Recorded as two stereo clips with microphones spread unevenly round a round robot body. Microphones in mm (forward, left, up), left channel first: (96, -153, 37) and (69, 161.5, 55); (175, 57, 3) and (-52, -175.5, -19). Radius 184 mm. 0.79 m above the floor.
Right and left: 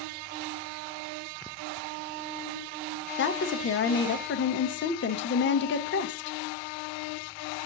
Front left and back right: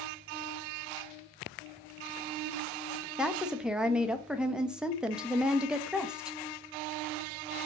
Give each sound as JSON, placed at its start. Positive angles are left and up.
{"t": 3.2, "sound": "a woman speaking", "azimuth_deg": -50, "distance_m": 0.6}